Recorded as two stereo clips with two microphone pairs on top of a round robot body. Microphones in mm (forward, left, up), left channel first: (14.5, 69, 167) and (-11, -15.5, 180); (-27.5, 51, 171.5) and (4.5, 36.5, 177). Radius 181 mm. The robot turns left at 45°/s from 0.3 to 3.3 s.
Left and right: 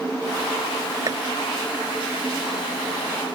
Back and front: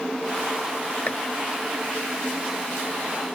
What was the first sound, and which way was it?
Chopping, 155° right.